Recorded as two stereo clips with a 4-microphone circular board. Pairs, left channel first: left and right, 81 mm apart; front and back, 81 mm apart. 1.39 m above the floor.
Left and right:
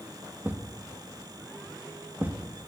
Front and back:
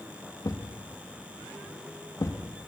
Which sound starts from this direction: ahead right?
A thud, at 0.4 s.